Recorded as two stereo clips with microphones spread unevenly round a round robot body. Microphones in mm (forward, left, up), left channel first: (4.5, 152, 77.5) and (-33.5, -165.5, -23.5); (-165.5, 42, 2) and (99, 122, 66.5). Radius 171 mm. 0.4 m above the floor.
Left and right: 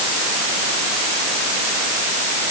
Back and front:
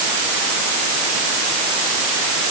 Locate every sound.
Only background noise.